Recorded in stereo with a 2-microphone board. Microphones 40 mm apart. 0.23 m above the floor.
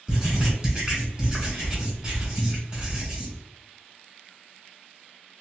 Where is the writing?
20° right (ahead or behind), 1.4 m.